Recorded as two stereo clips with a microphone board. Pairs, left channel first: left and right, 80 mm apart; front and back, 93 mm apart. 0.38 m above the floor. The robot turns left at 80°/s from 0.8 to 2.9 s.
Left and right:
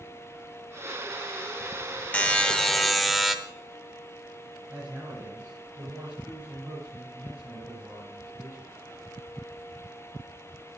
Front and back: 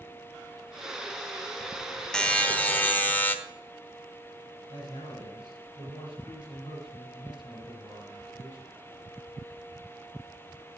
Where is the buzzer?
60° left, 0.8 m; by 3.4 s straight ahead, 0.8 m.